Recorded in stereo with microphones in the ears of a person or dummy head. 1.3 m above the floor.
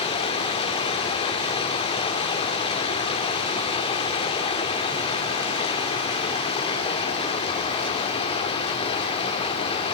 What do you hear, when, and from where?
0.0 s running water: 30° left (ahead or behind), 2.0 m